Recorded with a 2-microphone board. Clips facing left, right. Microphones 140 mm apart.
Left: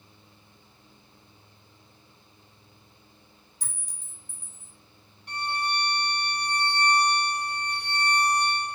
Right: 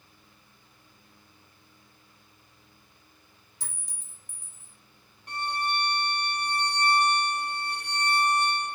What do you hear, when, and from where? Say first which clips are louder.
3.6 s a clink: right 2 dB; 85° right, 2 m
5.3 s a violin: even; 45° right (ahead or behind), 1.0 m